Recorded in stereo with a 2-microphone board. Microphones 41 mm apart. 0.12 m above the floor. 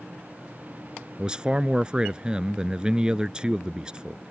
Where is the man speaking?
20° right (ahead or behind).